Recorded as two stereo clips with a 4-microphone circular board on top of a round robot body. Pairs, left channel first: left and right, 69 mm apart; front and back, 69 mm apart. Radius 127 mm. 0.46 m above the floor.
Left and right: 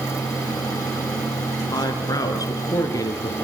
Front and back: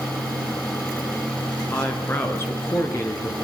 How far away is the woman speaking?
About 6 m.